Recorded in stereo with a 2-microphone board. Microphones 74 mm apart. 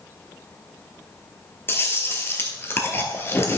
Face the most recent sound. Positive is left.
turn(degrees=30)  # may be behind; listen again after turning